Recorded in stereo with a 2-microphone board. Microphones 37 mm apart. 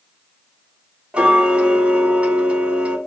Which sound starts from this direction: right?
Ticking, at 1.1 s.